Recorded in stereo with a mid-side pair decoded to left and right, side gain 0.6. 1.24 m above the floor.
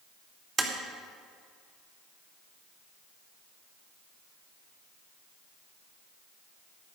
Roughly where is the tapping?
Ahead right.